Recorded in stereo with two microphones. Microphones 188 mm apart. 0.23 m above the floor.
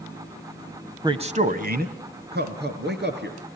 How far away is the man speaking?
About 1.0 m.